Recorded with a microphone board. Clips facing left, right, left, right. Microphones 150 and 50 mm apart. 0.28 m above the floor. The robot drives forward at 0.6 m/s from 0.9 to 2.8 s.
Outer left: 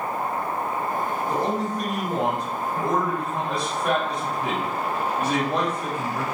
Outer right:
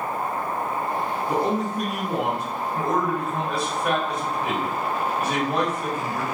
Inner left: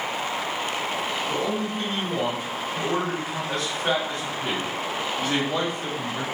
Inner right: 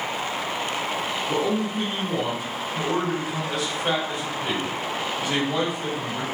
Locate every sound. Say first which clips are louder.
1.3 s a man speaking: outer right 3 dB, inner right 2 dB; 10° right (ahead or behind), 1.4 m; by 6.2 s 5° right (ahead or behind), 1.9 m